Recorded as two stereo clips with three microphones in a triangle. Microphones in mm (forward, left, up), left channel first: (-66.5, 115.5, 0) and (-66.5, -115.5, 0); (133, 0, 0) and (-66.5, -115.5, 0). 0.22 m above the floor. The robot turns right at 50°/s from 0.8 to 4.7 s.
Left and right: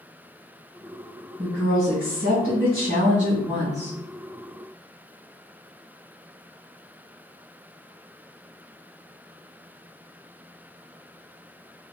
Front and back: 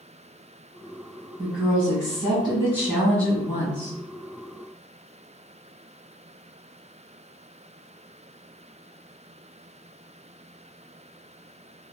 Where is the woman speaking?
145° right, 1.5 m; by 4.0 s 15° right, 1.5 m.